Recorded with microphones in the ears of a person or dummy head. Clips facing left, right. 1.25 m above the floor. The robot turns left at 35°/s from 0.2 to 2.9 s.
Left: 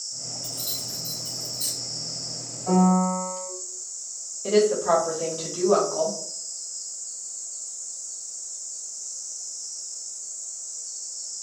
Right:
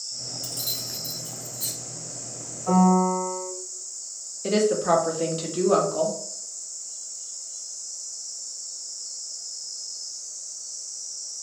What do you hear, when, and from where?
0.4 s keys jangling: 40° right (ahead or behind), 0.5 m; by 1.7 s centre (ahead or behind), 0.5 m
2.7 s a piano: 20° right (ahead or behind), 1.3 m; by 3.5 s 10° right (ahead or behind), 1.3 m
4.4 s a woman speaking: 30° right (ahead or behind), 0.7 m